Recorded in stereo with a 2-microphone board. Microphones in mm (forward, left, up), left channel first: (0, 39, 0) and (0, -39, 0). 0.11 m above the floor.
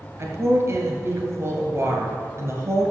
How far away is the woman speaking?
About 1.8 m.